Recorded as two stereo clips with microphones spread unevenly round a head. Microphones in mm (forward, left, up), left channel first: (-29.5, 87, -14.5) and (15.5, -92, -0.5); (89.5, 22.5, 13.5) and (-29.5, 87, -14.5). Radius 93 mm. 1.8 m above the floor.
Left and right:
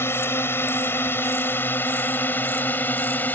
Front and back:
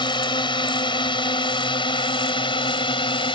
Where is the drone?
25° left.